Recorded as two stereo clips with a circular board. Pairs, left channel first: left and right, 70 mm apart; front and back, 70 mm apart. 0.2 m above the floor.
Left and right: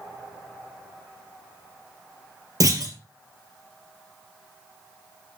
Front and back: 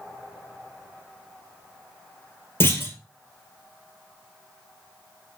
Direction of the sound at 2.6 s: 55° right.